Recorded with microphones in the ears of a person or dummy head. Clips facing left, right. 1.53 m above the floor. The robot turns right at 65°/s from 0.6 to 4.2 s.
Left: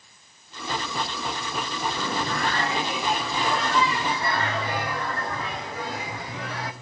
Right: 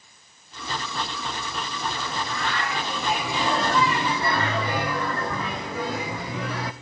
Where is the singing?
105° left, 1.0 m; by 6.7 s 110° right, 1.0 m.